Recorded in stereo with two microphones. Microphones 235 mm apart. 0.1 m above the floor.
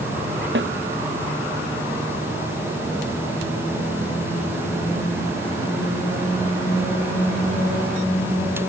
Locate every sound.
0.6 s a snare drum: 50° right (ahead or behind)